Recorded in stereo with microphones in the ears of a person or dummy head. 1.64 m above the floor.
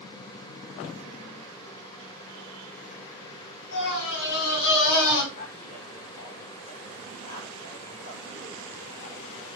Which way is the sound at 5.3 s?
45° left (ahead or behind).